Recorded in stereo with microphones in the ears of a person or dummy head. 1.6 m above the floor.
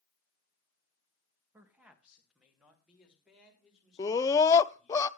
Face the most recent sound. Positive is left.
turn(degrees=15)  # may be behind; listen again after turning